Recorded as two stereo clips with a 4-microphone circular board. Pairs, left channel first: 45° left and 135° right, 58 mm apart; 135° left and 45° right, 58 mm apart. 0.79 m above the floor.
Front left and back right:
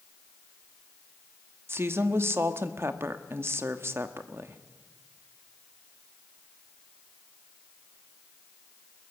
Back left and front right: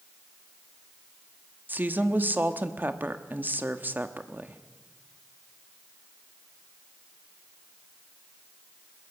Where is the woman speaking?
95° right, 1.3 m.